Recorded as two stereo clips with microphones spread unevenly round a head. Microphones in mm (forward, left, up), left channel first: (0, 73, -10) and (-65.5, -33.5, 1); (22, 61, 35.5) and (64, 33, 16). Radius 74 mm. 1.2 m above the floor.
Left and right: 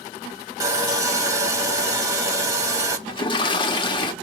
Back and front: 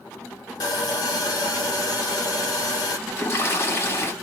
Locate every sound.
0.6 s sawing: 170° left, 1.7 m
3.1 s a toilet flushing: 115° left, 1.4 m